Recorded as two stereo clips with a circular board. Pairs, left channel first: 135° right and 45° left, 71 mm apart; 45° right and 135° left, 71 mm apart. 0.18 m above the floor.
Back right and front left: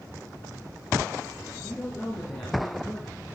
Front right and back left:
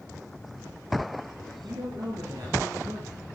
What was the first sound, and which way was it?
A man speaking, 155° left.